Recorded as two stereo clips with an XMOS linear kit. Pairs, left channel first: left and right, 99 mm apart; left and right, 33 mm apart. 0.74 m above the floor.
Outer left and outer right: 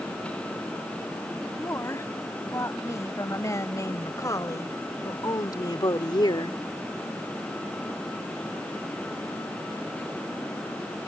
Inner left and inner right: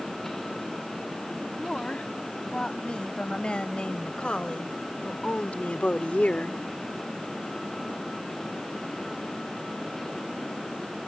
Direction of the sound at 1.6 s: 30° left (ahead or behind).